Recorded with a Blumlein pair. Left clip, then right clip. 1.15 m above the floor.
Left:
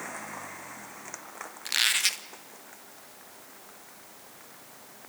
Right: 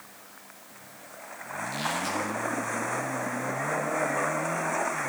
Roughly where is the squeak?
Ahead left.